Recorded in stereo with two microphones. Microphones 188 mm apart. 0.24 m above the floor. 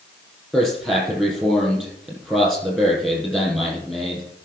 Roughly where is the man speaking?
Centre.